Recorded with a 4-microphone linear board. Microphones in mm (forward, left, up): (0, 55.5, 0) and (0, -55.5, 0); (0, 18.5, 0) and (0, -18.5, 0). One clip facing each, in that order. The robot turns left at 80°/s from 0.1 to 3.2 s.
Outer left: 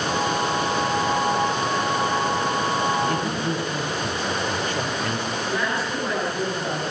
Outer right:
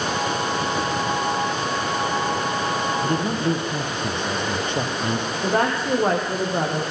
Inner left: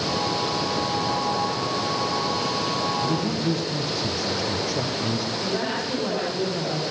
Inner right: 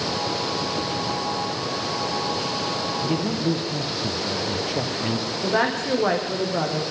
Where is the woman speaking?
60° right (ahead or behind), 8 m.